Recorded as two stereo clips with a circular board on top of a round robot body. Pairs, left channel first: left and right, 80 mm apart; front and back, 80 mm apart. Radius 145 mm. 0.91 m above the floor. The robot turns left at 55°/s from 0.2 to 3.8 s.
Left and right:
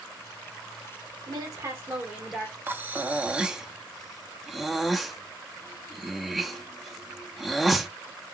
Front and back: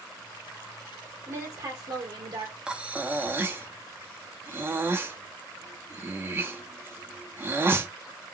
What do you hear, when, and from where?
1.3 s a woman speaking: 120° right, 1.6 m; by 2.5 s 170° left, 1.6 m
2.7 s breathing: 115° right, 0.7 m; by 7.9 s 175° right, 0.7 m